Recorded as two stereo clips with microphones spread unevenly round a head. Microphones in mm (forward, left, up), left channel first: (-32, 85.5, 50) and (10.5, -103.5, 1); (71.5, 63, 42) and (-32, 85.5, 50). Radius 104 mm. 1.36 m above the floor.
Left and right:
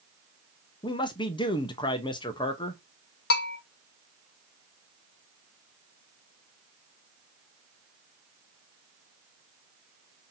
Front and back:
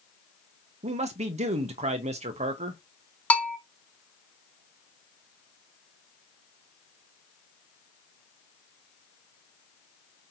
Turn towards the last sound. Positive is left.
turn(degrees=65)